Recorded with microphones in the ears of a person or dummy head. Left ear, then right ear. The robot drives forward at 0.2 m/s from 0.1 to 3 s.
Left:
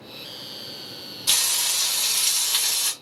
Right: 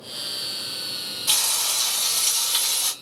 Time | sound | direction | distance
1.3 | frying | 15° left (ahead or behind) | 1.4 m